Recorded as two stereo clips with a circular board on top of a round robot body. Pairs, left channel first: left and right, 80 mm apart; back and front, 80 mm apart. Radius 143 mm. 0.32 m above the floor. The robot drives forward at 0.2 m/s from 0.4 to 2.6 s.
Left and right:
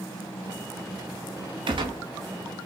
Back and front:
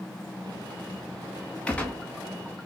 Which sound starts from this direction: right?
A gunshot, at 1.7 s.